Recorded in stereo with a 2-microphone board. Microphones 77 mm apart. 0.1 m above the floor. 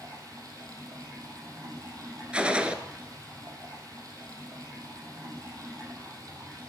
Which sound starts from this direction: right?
Running water, at 0.0 s.